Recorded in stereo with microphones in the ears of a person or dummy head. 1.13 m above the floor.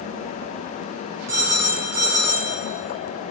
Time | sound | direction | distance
1.3 | a phone ringing | 20° right (ahead or behind) | 3 m